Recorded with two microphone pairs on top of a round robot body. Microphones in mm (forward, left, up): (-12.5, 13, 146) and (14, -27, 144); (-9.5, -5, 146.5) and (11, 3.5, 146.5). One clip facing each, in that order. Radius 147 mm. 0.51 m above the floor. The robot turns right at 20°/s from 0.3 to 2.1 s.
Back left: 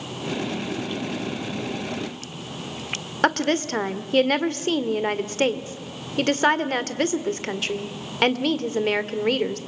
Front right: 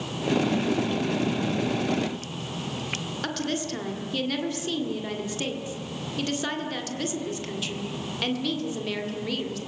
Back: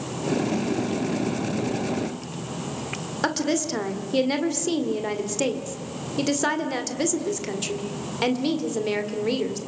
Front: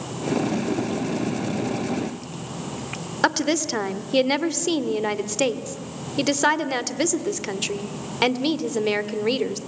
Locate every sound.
3.2 s a woman speaking: 90° left, 1.9 m